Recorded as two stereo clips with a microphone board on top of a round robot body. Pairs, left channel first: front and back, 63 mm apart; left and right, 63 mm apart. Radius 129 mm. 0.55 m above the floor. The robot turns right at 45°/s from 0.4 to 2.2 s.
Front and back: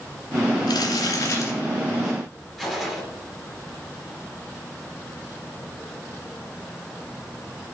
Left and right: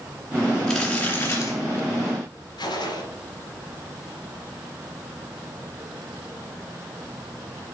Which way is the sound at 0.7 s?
5° left.